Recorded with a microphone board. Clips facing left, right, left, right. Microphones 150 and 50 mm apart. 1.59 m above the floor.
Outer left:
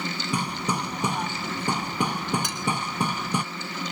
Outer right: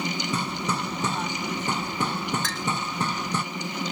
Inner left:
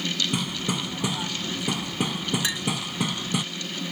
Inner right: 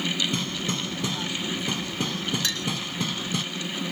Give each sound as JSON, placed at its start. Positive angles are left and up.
{"t": 0.3, "sound": "hammering", "side_deg": 15}
{"t": 2.4, "sound": "a clink", "side_deg": 15}